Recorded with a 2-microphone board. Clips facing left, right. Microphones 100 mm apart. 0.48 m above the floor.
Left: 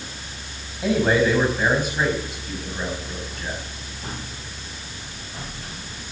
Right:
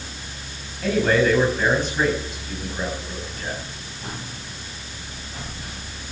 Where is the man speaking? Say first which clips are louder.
Even; 15° left (ahead or behind), 4 m; by 3.6 s 10° right (ahead or behind), 4.5 m.